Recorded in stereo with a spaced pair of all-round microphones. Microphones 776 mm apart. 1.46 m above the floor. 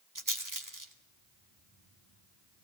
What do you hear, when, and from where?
0.1 s a rattle: 25° right (ahead or behind), 2.0 m